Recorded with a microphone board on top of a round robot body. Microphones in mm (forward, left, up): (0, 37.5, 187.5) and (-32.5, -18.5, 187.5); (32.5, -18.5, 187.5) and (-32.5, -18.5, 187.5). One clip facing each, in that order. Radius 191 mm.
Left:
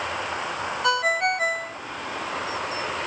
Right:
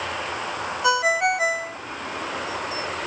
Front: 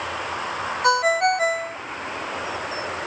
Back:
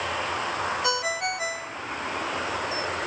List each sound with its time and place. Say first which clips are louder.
0.8 s a ringtone: right 2 dB, front 9 dB; 35° right